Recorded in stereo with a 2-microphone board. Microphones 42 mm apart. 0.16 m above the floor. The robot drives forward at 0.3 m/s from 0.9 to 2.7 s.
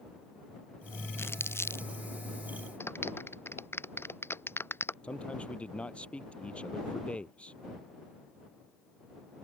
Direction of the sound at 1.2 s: 70° left (ahead or behind).